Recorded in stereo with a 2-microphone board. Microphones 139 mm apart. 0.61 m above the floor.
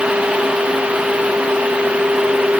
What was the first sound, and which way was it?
Only background noise.